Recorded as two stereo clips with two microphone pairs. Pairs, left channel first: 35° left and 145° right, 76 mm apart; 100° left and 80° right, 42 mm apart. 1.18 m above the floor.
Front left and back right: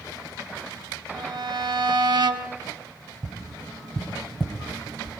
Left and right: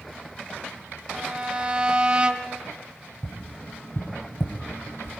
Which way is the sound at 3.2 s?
125° left.